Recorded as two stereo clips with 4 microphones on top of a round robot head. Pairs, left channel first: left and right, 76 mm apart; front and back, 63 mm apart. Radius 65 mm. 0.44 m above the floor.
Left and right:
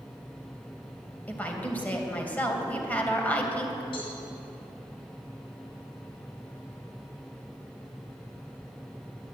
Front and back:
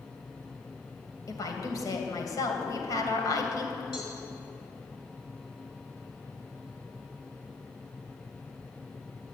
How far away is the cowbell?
About 5.5 m.